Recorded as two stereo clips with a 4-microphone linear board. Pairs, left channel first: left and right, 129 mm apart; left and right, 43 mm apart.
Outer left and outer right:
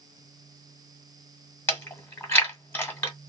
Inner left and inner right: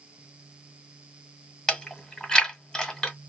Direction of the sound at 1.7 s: 15° left (ahead or behind).